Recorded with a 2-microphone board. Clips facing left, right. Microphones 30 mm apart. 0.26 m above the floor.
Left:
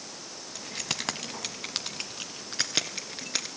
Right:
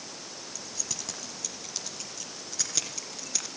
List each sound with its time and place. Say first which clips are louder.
0.6 s keys jangling: left 8 dB; 50° left (ahead or behind), 1.1 m; by 3.5 s 40° left (ahead or behind), 3 m